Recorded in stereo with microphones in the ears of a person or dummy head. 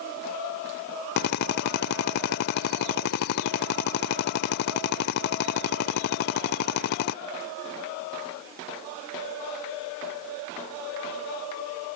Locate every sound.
1.2 s a drill: 55° left (ahead or behind)